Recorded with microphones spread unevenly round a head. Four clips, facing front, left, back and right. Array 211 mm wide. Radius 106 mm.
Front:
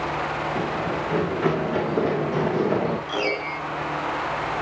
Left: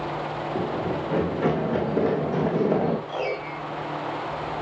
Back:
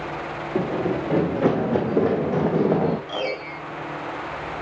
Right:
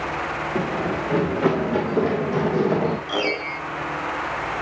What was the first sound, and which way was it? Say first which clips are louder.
Running footsteps: right 3 dB, back 2 dB; 170° right.